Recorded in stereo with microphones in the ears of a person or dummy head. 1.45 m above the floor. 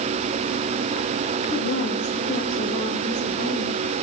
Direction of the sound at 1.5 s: 60° left (ahead or behind).